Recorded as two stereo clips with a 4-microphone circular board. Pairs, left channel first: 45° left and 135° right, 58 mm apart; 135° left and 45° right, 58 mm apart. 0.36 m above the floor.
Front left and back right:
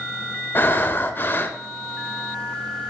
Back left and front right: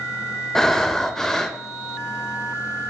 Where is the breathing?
55° left, 0.6 m.